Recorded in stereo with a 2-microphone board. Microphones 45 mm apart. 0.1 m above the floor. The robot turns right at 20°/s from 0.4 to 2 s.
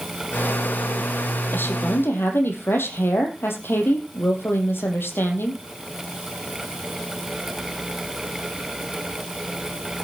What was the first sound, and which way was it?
A woman speaking, 55° left (ahead or behind).